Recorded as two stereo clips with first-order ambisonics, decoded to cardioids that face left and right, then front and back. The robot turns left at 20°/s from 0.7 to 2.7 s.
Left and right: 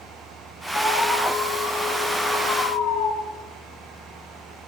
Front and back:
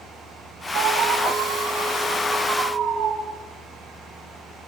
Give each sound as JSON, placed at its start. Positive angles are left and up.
{"t": 0.8, "sound": "an alarm", "azimuth_deg": 160, "distance_m": 4.5}